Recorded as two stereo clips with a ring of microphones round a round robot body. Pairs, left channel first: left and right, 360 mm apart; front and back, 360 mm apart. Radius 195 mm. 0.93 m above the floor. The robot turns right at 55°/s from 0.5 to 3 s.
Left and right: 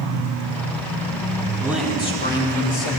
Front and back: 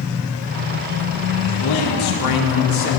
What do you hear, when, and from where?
1.6 s a man speaking: 10° right, 3 m; by 2.9 s 60° left, 3 m